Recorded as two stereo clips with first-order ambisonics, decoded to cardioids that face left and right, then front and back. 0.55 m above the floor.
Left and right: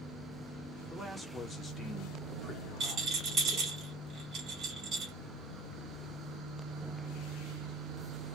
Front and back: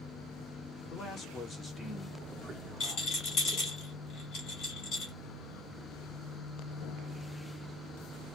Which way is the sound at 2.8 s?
35° right.